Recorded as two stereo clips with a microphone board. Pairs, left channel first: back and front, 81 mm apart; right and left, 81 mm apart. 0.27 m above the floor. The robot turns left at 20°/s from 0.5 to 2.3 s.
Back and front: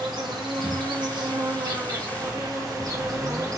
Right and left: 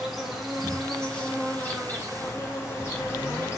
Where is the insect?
Straight ahead, 1.6 m; by 3.6 s 35° right, 1.6 m.